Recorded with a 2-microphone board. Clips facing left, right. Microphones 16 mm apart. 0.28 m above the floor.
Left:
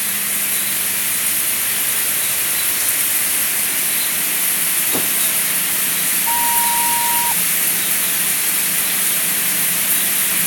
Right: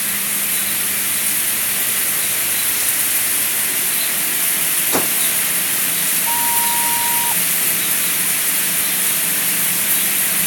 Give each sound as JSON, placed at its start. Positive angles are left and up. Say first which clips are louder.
{"t": 4.9, "sound": "a whoosh", "louder": "right 5 dB", "side_deg": -25}
{"t": 6.3, "sound": "a flute", "louder": "left 3 dB", "side_deg": 0}